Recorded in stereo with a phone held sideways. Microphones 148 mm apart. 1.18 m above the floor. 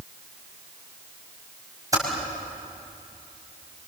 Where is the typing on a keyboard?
25° right (ahead or behind), 5.5 m.